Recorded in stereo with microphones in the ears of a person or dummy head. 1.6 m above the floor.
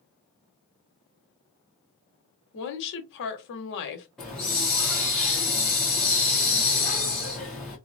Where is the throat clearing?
I don't hear throat clearing.